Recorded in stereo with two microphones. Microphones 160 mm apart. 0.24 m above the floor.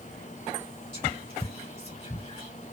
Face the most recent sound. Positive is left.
turn(degrees=30)  # may be behind; listen again after turning